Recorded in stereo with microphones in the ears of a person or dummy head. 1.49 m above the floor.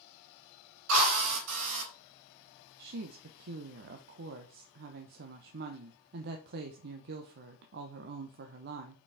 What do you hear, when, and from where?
0.9 s a drill: 75° right (ahead or behind), 4 m
2.8 s a woman speaking: 50° right (ahead or behind), 0.8 m